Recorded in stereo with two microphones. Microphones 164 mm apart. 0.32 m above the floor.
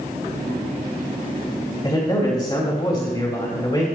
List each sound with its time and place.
1.8 s a man speaking: 30° left (ahead or behind), 2.5 m